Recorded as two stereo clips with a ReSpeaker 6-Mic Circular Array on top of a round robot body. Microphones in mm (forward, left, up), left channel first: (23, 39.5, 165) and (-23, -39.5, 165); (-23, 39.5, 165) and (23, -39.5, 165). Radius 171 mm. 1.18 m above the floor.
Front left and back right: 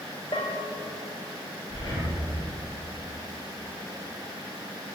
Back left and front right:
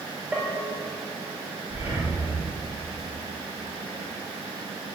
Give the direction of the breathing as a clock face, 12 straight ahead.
12 o'clock.